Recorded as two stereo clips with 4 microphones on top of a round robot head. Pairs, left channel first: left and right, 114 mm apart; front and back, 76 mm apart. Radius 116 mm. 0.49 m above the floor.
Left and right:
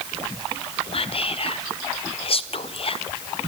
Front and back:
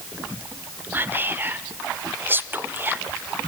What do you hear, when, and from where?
0.9 s whispering: 115° left, 1.6 m